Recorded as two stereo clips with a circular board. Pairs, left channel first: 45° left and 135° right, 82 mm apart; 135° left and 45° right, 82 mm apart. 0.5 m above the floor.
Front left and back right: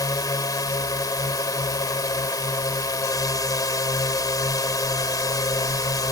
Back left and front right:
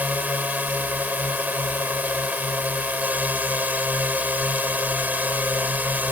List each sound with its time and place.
0.0 s a drone: 20° left